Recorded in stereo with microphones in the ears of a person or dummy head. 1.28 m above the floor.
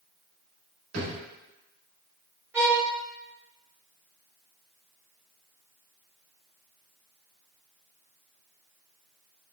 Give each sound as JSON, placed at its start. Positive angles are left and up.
{"t": 0.9, "sound": "a drawer", "side_deg": -75, "distance_m": 1.6}
{"t": 2.5, "sound": "a violin", "side_deg": -10, "distance_m": 1.3}